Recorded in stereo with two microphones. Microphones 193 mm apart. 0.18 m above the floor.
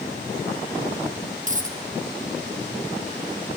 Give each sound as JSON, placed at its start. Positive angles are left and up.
{"t": 1.5, "sound": "a dropped coin", "side_deg": -45, "distance_m": 3.0}